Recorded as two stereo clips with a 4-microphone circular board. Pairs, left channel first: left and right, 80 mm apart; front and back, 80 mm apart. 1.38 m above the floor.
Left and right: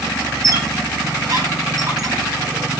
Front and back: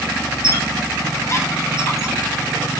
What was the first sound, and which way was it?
A squeak, 50° right.